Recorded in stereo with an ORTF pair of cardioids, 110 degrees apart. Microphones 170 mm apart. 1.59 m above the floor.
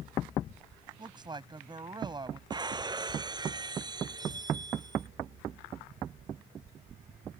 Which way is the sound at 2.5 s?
25° right.